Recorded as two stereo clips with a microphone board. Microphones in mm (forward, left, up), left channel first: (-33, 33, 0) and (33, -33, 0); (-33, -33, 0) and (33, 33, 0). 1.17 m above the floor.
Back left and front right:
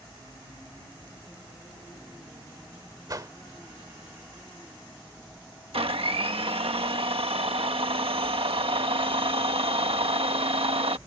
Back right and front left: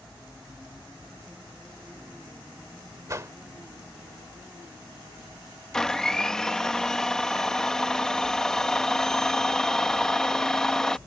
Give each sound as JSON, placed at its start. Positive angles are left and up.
{"t": 3.1, "sound": "a whoosh", "azimuth_deg": -5}
{"t": 5.7, "sound": "a blender", "azimuth_deg": -50}